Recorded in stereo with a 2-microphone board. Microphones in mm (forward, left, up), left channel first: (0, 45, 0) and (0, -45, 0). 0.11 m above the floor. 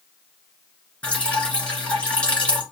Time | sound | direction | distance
1.0 | dripping | 10° left (ahead or behind) | 1.7 m